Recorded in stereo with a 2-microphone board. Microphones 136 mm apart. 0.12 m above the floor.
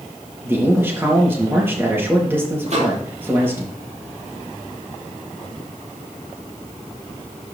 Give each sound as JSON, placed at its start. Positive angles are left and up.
{"t": 0.4, "sound": "a man speaking", "side_deg": -15, "distance_m": 3.0}
{"t": 2.7, "sound": "a microwave", "side_deg": -55, "distance_m": 3.0}